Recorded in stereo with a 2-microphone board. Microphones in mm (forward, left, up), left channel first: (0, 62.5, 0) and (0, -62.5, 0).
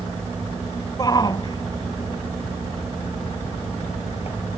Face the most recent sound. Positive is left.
turn(degrees=55)  # may be behind; listen again after turning